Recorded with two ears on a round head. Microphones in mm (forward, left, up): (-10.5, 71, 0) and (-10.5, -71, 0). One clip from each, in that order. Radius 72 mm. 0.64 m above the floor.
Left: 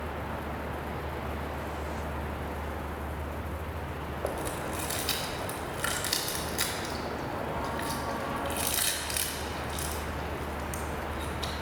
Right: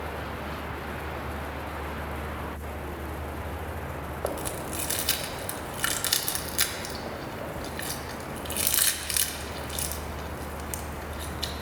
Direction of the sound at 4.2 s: 25° right (ahead or behind).